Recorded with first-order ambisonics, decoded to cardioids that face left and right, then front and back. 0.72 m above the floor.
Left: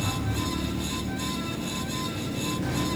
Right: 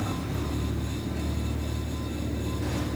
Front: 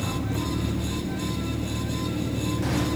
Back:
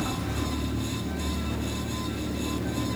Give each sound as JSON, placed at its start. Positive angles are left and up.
{"t": 0.0, "sound": "an engine running", "azimuth_deg": 30, "distance_m": 10.0}